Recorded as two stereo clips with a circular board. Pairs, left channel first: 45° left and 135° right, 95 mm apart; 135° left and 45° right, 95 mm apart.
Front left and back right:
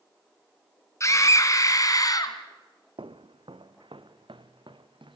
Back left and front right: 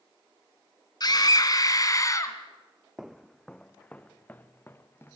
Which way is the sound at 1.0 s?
100° left.